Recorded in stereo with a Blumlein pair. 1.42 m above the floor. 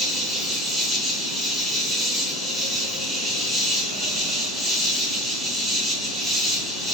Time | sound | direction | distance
0.0 | an insect | 5° left | 0.8 m